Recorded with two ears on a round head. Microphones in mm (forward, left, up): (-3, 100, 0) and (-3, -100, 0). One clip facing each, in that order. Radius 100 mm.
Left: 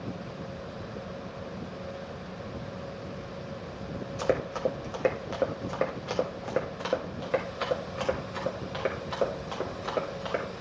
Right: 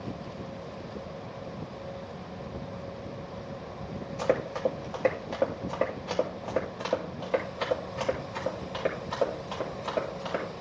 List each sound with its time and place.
4.2 s running footsteps: 15° left (ahead or behind), 1.7 m; by 10.4 s 20° left (ahead or behind), 5 m